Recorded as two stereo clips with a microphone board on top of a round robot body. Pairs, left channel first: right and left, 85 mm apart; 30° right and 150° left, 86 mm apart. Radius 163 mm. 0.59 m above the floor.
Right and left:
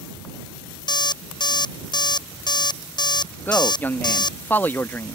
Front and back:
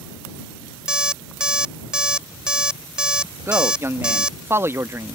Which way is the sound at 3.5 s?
155° right.